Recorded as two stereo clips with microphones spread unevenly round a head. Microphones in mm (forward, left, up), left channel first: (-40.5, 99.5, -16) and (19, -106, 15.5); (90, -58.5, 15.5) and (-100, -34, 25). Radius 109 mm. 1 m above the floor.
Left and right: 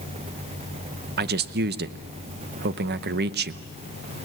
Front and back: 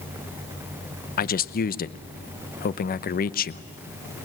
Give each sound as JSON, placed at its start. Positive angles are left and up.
{"t": 1.2, "sound": "a man speaking", "azimuth_deg": -30, "distance_m": 0.7}